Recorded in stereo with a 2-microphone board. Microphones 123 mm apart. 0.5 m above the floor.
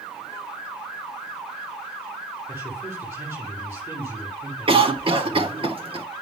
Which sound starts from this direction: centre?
A man speaking, at 2.5 s.